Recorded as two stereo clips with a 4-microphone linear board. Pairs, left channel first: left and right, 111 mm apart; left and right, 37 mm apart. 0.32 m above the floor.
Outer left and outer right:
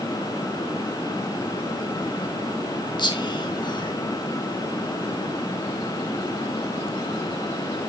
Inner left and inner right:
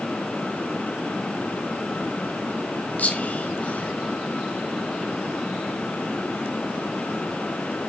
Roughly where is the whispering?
Left.